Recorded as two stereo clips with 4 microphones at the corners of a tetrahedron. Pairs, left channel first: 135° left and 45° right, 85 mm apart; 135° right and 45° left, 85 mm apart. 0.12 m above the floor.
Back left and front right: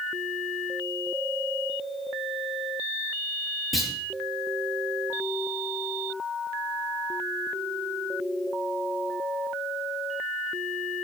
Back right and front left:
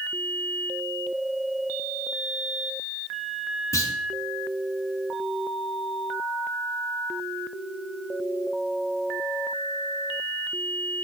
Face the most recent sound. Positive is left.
turn(degrees=-135)